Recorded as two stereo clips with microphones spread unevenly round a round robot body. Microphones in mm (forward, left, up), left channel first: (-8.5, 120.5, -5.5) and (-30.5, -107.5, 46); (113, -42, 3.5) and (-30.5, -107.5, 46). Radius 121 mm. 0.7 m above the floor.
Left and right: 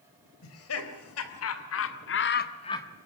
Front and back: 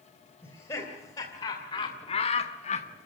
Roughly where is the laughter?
Left.